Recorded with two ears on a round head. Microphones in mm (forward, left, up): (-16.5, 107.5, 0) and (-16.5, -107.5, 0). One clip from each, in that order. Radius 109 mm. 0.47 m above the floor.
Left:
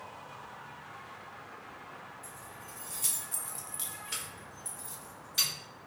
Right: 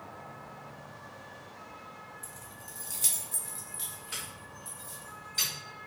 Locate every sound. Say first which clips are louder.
2.2 s keys jangling: even; 25° right (ahead or behind), 0.8 m; by 5.5 s 25° left (ahead or behind), 1.8 m